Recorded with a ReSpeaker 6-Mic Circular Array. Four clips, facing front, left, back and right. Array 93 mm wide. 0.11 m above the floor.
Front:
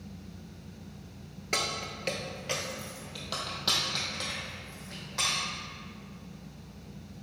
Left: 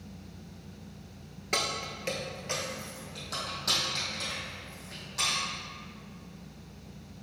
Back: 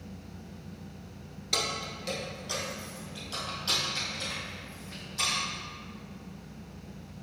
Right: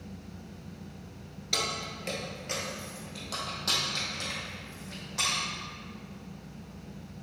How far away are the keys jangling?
About 1.1 m.